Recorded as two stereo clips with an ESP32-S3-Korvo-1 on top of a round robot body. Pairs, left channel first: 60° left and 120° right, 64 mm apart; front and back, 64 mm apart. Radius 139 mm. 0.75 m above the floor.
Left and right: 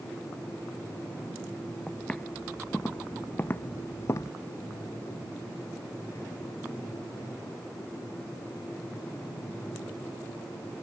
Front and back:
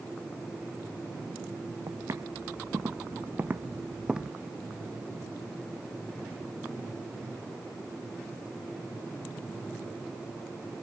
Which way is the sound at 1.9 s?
135° left.